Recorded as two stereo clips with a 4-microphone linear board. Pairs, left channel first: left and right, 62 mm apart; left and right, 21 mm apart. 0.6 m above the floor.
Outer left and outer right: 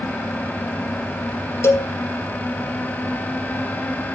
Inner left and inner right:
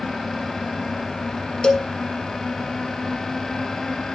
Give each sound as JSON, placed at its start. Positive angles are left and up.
{"t": 1.6, "sound": "a cowbell", "side_deg": 45, "distance_m": 1.4}